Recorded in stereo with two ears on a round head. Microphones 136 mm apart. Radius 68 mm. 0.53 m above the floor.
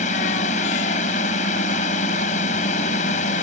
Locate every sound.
0.0 s a drone: 50° left (ahead or behind)